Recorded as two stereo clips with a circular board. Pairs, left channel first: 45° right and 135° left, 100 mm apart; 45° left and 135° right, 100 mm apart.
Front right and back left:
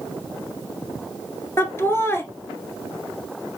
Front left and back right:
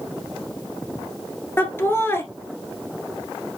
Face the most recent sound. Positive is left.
turn(degrees=0)